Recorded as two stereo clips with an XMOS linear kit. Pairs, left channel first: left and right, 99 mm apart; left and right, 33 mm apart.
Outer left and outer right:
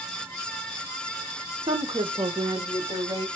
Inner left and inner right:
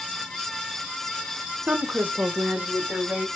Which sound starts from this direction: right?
A woman speaking, at 1.7 s.